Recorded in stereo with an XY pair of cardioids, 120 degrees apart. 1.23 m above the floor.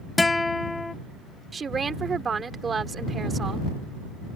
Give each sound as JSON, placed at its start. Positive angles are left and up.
{"t": 0.2, "sound": "a guitar", "azimuth_deg": 15}
{"t": 1.5, "sound": "a woman speaking", "azimuth_deg": -30}